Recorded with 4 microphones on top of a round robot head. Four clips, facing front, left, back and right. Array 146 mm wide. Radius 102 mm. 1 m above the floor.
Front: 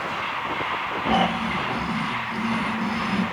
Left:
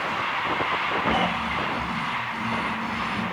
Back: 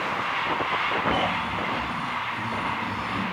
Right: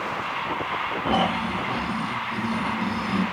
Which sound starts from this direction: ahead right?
Snoring, at 1.1 s.